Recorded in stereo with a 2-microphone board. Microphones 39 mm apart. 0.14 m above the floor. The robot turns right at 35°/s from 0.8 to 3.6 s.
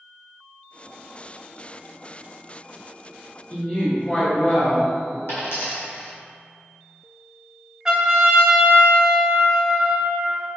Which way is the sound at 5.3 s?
80° left.